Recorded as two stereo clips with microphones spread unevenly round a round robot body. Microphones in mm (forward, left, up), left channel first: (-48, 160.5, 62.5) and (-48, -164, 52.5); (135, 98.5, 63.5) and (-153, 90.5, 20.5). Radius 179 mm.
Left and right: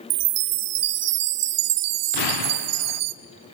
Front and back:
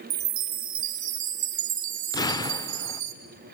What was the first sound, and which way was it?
A chime, 135° right.